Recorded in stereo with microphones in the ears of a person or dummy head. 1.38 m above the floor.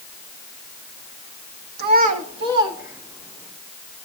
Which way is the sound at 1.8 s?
55° right (ahead or behind).